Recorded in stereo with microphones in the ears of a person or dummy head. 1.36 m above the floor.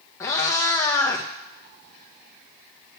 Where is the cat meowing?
15° left (ahead or behind), 0.5 m.